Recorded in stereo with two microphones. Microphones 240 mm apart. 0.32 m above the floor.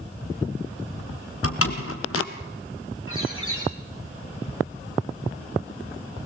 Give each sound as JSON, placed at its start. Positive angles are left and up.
{"t": 1.4, "sound": "a door slam", "side_deg": 75, "distance_m": 2.5}
{"t": 3.1, "sound": "a bird", "side_deg": 65, "distance_m": 8.5}